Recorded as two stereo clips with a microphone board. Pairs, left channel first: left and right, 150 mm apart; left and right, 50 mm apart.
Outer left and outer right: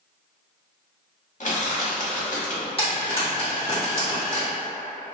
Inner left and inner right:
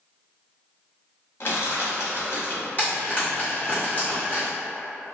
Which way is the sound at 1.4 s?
55° left (ahead or behind).